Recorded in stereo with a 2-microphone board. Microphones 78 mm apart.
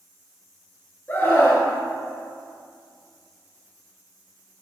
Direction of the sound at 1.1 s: 25° left (ahead or behind).